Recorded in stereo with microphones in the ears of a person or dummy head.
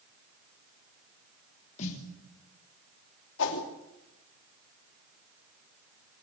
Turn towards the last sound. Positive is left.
turn(degrees=70)  # may be behind; listen again after turning